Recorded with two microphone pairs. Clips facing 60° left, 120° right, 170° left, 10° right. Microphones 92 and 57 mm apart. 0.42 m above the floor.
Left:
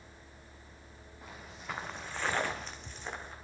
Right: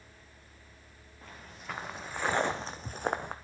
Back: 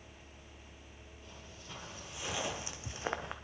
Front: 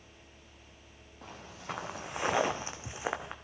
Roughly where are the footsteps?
Ahead.